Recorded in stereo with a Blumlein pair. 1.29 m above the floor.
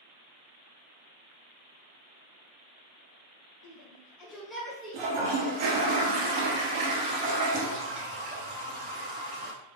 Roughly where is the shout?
Ahead left.